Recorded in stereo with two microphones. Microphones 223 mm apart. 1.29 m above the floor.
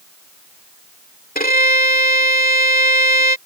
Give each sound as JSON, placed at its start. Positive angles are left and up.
{"t": 1.4, "sound": "a violin", "side_deg": 45}